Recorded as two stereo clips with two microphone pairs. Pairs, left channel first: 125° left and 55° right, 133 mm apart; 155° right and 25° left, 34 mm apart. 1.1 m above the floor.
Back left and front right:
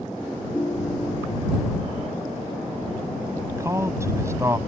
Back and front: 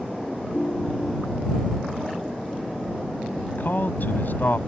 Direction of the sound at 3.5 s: 125° right.